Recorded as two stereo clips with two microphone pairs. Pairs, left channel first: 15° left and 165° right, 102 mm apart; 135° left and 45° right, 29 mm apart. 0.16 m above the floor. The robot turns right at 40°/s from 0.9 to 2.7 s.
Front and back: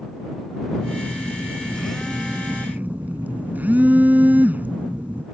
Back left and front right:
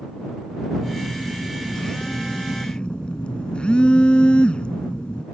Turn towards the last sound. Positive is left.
turn(degrees=135)